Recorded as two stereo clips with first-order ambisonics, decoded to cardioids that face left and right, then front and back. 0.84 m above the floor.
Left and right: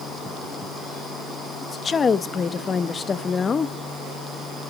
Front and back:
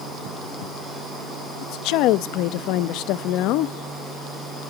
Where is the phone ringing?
No phone ringing in this recording.